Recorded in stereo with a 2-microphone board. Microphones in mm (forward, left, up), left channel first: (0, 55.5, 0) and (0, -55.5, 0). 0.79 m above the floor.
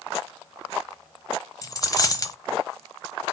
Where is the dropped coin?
35° left (ahead or behind), 0.8 m.